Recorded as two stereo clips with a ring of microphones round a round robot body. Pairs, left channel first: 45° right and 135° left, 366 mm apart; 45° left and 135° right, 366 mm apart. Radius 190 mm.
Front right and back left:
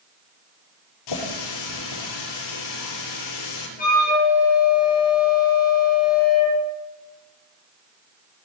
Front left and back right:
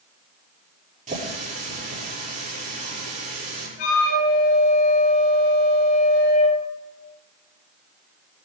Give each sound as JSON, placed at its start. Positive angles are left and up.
{"t": 1.1, "sound": "a running tap", "azimuth_deg": -65, "distance_m": 7.0}
{"t": 3.8, "sound": "a flute", "azimuth_deg": 25, "distance_m": 6.0}